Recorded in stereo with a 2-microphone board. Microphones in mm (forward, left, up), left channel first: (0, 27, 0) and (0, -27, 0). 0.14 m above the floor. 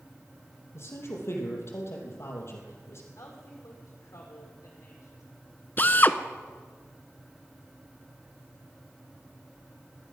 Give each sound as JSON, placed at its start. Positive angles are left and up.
{"t": 0.7, "sound": "a man speaking", "side_deg": 55, "distance_m": 4.0}
{"t": 3.2, "sound": "a woman speaking", "side_deg": 70, "distance_m": 5.0}
{"t": 5.8, "sound": "a drill", "side_deg": 40, "distance_m": 0.6}